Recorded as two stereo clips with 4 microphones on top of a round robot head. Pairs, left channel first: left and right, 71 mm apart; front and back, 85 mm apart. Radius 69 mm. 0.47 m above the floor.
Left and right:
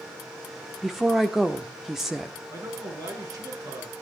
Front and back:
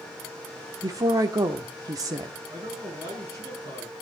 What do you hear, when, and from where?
0.8 s a woman speaking: 175° right, 1.2 m
2.5 s a man speaking: 125° right, 6 m